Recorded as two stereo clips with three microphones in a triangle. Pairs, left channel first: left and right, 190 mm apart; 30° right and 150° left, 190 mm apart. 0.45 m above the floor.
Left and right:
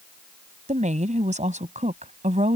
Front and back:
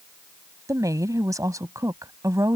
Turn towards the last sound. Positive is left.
turn(degrees=-140)